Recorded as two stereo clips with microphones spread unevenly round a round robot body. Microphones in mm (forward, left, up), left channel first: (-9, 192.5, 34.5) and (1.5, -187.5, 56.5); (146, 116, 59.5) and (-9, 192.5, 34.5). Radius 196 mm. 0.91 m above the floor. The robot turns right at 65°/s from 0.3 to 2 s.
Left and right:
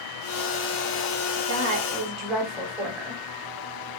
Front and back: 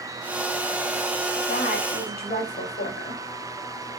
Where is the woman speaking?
35° right, 5 m; by 3.2 s straight ahead, 5 m.